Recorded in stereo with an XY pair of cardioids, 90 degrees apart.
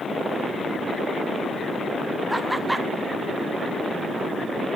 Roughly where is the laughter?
Ahead.